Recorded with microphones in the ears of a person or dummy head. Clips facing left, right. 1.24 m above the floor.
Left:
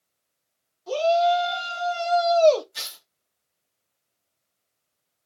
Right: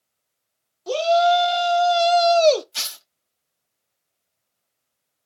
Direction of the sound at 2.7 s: 80° right.